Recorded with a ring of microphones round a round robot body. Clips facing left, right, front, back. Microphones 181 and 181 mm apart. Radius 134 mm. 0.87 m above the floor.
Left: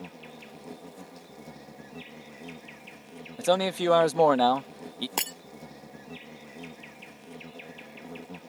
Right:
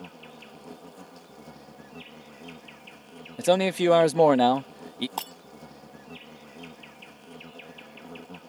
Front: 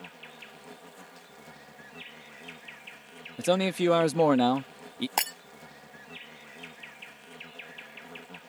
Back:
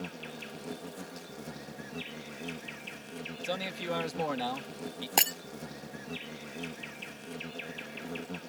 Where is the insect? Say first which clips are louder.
Left 1 dB, back 8 dB; 170° left.